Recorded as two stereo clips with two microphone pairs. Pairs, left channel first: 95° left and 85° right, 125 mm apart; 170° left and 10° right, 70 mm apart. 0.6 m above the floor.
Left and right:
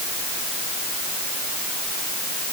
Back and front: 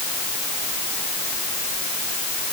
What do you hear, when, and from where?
Only background noise.